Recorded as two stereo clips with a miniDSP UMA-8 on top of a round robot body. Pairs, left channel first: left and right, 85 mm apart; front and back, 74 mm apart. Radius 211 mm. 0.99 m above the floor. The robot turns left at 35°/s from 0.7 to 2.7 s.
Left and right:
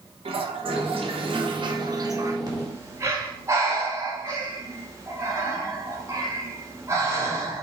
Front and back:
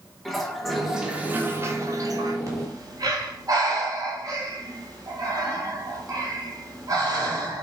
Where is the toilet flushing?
90° right, 1.0 m; by 2.4 s 150° right, 1.0 m.